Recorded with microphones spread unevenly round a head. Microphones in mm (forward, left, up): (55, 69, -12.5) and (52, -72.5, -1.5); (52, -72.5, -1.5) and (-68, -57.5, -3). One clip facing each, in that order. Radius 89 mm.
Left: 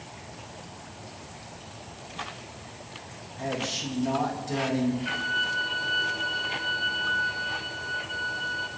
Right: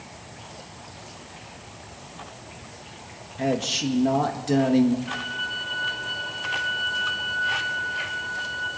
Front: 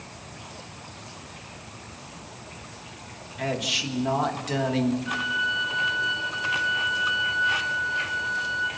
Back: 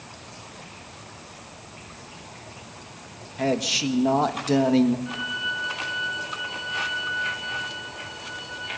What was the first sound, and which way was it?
A man speaking, 135° right.